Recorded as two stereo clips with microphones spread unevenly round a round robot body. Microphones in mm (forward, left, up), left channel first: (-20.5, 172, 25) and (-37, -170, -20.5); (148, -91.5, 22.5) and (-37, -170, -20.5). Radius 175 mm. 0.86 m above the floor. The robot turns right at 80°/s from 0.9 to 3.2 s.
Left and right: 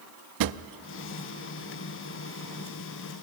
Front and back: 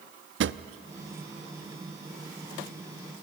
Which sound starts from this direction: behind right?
A drawer, at 0.4 s.